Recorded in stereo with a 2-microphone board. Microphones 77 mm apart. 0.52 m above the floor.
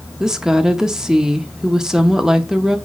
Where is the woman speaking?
10° right (ahead or behind), 0.7 m.